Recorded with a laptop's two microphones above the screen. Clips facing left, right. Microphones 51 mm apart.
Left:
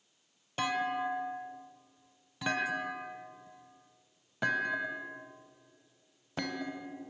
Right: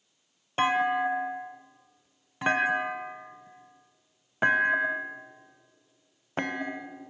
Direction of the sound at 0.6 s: 35° right (ahead or behind).